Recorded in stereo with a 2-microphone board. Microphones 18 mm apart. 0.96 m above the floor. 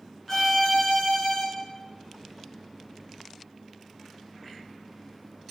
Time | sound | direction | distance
0.3 | a violin | 20° left (ahead or behind) | 1.7 m